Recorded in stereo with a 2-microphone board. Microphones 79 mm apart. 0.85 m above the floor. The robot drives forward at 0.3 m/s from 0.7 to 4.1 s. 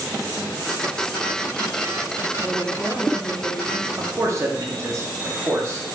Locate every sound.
2.4 s a woman speaking: 5° right (ahead or behind), 0.9 m
4.0 s a man speaking: 40° right (ahead or behind), 0.8 m